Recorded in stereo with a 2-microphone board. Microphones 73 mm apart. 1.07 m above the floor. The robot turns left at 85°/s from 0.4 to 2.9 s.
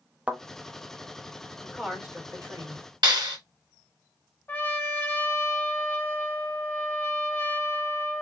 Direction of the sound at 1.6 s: 10° left.